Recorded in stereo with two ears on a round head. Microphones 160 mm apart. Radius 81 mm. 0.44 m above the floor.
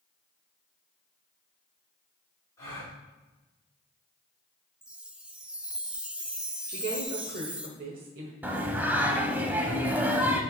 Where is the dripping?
No dripping in this recording.